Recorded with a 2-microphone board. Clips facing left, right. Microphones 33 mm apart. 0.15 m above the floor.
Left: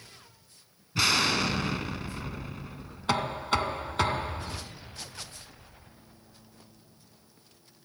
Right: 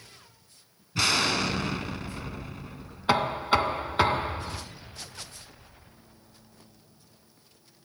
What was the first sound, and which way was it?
An explosion, 5° left (ahead or behind).